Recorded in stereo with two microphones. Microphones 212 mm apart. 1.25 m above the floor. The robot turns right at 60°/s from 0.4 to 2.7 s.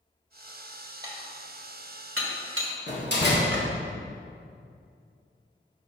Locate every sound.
1.0 s dishes clattering: 15° right (ahead or behind), 1.6 m; by 3.7 s 65° right (ahead or behind), 1.6 m
2.9 s a door slam: 55° left (ahead or behind), 1.8 m